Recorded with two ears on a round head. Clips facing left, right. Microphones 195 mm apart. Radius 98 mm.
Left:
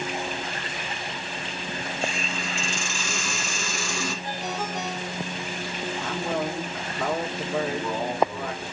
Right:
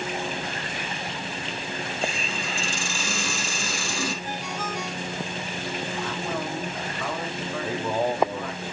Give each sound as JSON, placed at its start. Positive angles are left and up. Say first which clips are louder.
{"t": 2.0, "sound": "a hiss", "louder": "even", "side_deg": -30, "distance_m": 3.0}
{"t": 4.2, "sound": "a ringtone", "louder": "left 1 dB", "side_deg": 35, "distance_m": 2.5}
{"t": 6.0, "sound": "a man speaking", "louder": "left 5 dB", "side_deg": 40, "distance_m": 1.9}
{"t": 7.5, "sound": "a man speaking", "louder": "even", "side_deg": -25, "distance_m": 1.3}